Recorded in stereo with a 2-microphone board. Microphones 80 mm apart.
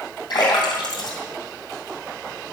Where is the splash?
65° left (ahead or behind), 2.5 m.